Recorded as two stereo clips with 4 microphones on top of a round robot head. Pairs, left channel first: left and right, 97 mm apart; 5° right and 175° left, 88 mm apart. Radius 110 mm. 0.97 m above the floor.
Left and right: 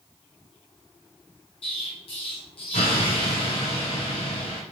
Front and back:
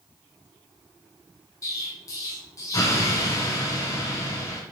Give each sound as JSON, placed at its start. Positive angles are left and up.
{"t": 1.6, "sound": "an explosion", "azimuth_deg": 50, "distance_m": 2.5}